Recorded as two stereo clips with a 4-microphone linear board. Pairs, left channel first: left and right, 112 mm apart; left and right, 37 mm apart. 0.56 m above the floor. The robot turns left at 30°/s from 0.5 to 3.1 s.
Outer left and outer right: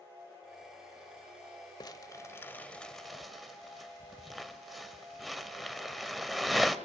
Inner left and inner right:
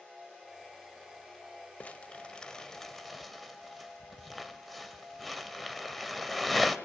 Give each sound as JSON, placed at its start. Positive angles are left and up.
{"t": 1.8, "sound": "crumpling", "side_deg": 35, "distance_m": 1.3}